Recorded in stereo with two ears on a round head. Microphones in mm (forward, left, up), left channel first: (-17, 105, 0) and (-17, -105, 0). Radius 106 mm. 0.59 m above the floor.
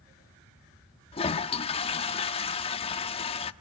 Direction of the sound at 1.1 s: 25° left (ahead or behind).